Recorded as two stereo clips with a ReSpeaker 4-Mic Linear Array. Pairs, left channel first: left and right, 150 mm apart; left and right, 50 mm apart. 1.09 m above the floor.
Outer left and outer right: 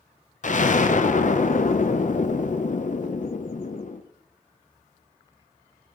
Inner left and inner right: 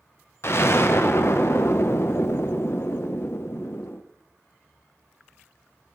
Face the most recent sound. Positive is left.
turn(degrees=55)  # may be behind; listen again after turning